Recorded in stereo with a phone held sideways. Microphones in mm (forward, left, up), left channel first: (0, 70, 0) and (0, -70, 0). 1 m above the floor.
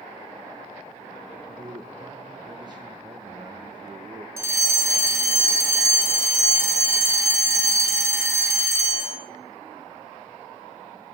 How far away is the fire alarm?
About 1.3 m.